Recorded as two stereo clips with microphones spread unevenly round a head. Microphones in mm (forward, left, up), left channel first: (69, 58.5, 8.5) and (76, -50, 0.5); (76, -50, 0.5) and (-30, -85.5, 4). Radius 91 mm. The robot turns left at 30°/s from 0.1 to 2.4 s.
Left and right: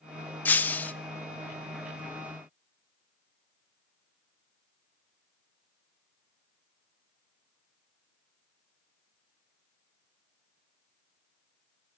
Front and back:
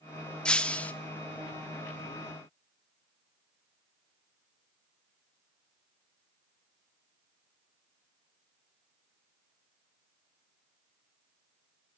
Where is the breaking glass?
90° left, 0.6 m; by 0.9 s 75° left, 0.6 m.